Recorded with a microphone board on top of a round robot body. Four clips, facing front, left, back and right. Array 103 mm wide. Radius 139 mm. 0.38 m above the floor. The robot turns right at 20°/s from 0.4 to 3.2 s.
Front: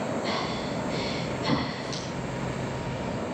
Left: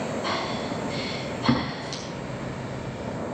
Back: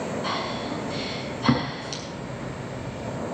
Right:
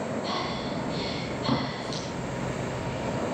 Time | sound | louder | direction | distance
0.2 | breathing | left 2 dB, back 1 dB | 135° left | 7 m